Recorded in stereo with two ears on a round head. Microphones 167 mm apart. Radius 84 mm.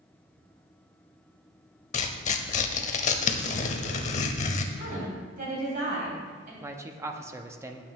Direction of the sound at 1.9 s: 40° left (ahead or behind).